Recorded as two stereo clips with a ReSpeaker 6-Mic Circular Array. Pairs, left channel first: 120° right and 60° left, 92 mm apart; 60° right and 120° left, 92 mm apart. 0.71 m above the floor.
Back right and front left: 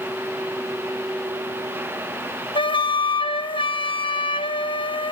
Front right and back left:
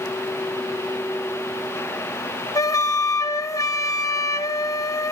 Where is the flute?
110° right, 0.6 m.